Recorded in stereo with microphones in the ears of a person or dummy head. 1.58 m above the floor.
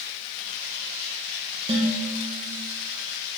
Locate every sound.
1.7 s dishes clattering: 30° right (ahead or behind), 1.0 m